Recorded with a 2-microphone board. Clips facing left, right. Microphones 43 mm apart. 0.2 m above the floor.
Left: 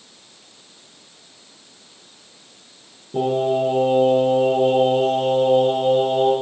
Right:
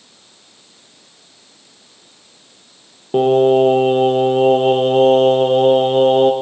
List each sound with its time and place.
3.1 s singing: 60° right (ahead or behind), 2 m